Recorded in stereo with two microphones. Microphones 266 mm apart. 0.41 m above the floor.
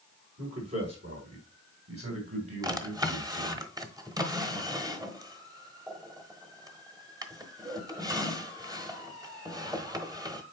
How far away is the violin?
No violin in this recording.